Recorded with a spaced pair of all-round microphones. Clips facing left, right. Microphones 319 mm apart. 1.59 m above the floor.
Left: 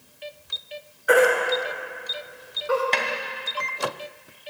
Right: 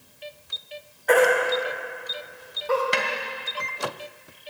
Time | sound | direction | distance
1.1 | a baby crying | 15° left (ahead or behind) | 2.5 m
2.9 | a snare drum | 10° right (ahead or behind) | 1.1 m